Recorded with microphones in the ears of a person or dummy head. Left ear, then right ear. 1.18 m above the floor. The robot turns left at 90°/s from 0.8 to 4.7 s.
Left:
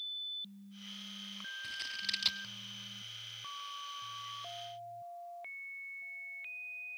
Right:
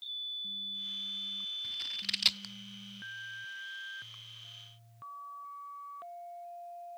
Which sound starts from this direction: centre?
Scissors, at 1.6 s.